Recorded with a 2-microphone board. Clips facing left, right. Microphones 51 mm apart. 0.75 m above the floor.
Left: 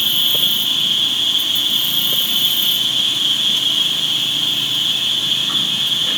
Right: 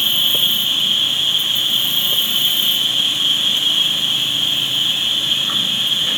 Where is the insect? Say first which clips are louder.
Even; 25° right (ahead or behind), 2.5 m.